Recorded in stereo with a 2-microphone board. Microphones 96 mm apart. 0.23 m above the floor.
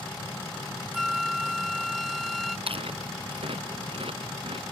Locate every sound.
0.9 s a flute: centre (ahead or behind)
2.7 s chewing: 70° right (ahead or behind)